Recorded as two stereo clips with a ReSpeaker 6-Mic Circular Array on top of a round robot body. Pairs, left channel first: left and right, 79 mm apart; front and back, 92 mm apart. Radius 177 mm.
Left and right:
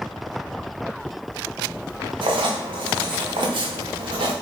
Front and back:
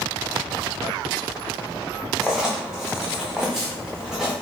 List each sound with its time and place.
2.2 s writing: 95° right, 0.5 m